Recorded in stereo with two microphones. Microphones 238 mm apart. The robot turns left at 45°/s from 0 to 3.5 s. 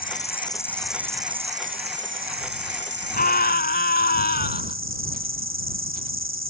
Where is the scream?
40° left (ahead or behind); by 4.8 s 45° left (ahead or behind).